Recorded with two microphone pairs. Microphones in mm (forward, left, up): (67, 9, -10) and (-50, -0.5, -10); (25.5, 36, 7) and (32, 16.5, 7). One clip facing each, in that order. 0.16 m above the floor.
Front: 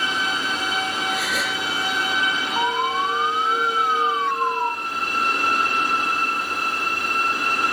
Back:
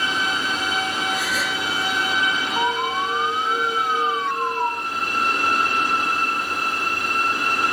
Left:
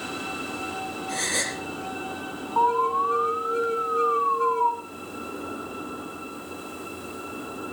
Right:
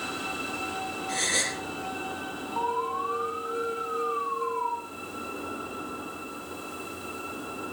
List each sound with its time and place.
1.1 s a gasp: 5° left, 4.5 m
2.6 s an alarm: 65° left, 2.5 m